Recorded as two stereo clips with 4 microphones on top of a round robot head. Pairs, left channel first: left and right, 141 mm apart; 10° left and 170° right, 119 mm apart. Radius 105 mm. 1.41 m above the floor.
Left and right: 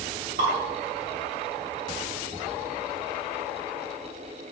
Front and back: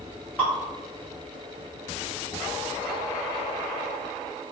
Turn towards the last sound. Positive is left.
turn(degrees=-70)